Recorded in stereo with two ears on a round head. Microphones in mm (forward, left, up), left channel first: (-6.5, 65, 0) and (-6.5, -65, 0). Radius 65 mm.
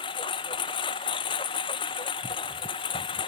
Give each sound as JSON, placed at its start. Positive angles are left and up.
{"t": 0.0, "sound": "a lawn mower", "side_deg": 35}